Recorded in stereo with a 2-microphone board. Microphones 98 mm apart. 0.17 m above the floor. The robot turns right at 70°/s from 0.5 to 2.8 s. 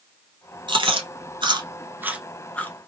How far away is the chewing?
About 0.7 m.